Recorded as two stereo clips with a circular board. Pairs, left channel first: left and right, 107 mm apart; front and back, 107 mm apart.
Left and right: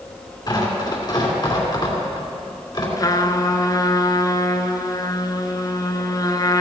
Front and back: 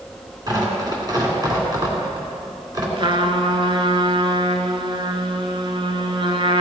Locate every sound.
0.5 s tearing paper: 135° left, 2.5 m
3.0 s a trumpet: 145° left, 0.8 m